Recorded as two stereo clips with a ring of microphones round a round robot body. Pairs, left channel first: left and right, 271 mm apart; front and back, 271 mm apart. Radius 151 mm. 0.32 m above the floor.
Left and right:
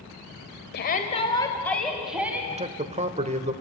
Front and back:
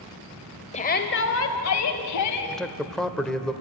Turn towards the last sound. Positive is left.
turn(degrees=-85)